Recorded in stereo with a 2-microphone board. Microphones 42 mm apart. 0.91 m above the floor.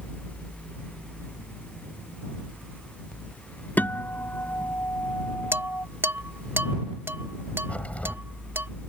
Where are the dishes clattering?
75° right (ahead or behind).